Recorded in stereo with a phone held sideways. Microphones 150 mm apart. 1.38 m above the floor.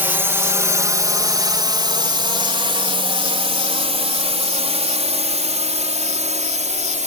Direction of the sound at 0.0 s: 15° right (ahead or behind).